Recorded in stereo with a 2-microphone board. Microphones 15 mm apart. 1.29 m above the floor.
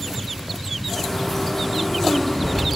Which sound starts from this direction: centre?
A bird, at 0.9 s.